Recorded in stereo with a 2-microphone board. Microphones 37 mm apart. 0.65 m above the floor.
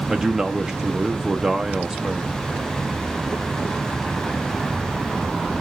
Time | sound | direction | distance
0.1 | a man speaking | 15° right (ahead or behind) | 0.6 m